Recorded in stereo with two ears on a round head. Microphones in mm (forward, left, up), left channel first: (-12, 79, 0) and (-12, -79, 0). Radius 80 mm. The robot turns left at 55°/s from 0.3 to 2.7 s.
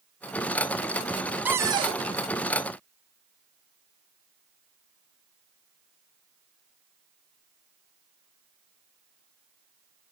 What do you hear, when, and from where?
1.4 s a cupboard door: 10° right, 0.7 m; by 2.0 s 40° right, 0.7 m